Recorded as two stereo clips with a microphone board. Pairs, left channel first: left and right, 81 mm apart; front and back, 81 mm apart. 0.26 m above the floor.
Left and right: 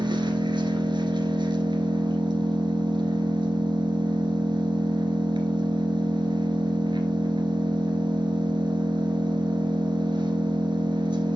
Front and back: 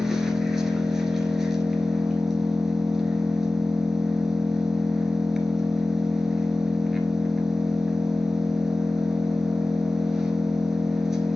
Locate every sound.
0.0 s an engine running: 95° right, 1.8 m